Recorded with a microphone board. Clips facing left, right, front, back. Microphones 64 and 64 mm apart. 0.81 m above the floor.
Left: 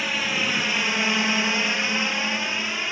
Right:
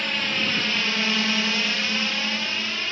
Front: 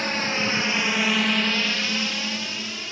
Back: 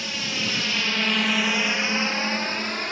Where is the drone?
10° left; by 2.9 s 160° left.